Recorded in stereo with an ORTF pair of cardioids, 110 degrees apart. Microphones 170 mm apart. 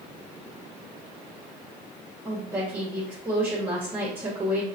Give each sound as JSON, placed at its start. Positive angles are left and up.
{"t": 2.2, "sound": "a woman speaking", "azimuth_deg": -15, "distance_m": 1.2}